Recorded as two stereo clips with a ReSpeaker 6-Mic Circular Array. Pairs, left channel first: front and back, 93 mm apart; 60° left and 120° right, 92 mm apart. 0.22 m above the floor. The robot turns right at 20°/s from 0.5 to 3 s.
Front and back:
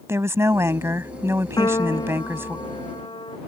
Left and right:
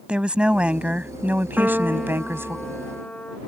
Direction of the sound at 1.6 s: 45° right.